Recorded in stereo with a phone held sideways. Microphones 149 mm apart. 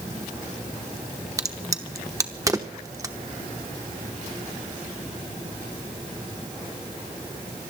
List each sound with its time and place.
1.4 s a crack: 20° right (ahead or behind), 1.0 m